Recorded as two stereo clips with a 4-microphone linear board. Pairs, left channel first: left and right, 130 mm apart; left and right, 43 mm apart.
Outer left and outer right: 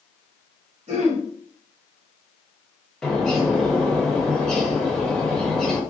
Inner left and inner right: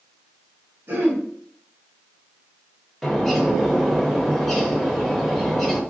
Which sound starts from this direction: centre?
A bird, at 3.0 s.